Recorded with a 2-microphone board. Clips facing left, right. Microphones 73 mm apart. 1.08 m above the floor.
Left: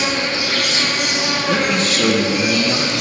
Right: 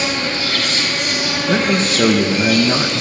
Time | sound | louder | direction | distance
0.0 | an insect | even | 15° left (ahead or behind) | 6 m
1.5 | a man speaking | right 2 dB | 35° right (ahead or behind) | 1.3 m